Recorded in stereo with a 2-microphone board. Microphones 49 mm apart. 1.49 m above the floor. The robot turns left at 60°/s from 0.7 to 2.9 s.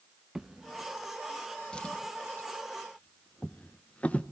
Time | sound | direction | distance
0.3 | a drawer | 10° right (ahead or behind) | 0.6 m